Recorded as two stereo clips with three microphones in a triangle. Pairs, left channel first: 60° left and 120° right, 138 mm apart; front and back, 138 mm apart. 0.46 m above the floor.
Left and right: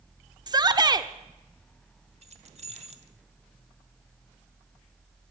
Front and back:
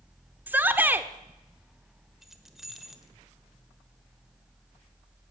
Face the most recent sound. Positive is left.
turn(degrees=-95)